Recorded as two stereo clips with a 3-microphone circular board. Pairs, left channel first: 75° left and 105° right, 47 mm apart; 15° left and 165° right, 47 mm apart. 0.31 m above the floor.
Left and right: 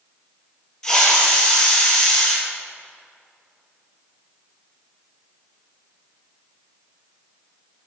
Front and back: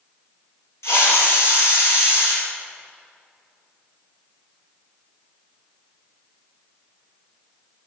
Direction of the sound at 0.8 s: 5° right.